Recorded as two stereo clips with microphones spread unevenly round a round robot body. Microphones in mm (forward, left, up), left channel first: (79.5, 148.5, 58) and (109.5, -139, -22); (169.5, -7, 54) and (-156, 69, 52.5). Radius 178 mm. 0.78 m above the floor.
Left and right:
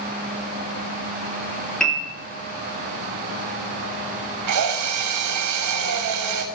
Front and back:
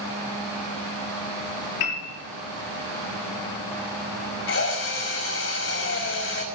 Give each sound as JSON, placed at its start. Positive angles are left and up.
{"t": 1.8, "sound": "a piano", "azimuth_deg": 10, "distance_m": 6.5}
{"t": 4.5, "sound": "a drill", "azimuth_deg": -70, "distance_m": 5.0}